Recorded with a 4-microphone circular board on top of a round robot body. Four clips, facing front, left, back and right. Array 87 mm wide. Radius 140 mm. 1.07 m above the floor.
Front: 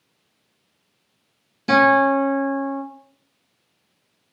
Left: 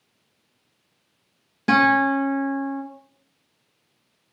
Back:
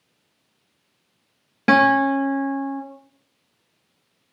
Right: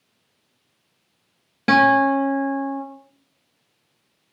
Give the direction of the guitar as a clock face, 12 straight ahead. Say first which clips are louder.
Right 3 dB, front 1 dB; 5 o'clock.